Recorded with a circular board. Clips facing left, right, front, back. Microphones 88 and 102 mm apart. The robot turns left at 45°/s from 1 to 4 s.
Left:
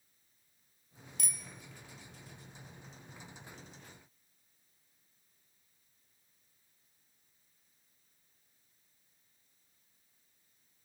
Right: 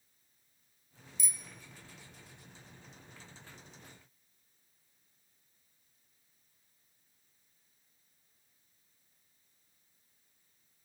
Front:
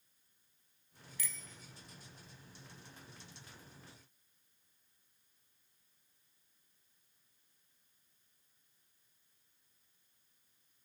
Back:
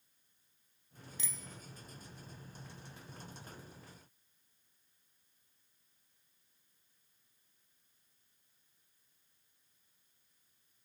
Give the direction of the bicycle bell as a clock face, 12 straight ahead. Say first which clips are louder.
Left 1 dB, even; 8 o'clock.